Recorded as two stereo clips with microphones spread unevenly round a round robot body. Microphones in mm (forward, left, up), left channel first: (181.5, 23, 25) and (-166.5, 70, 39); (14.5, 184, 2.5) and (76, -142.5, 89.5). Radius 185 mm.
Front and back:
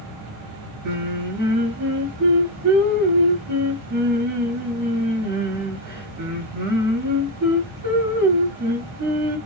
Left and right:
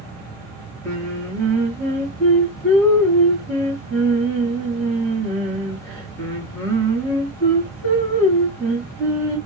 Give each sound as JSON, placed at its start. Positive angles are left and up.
{"t": 0.8, "sound": "singing", "azimuth_deg": 165, "distance_m": 1.1}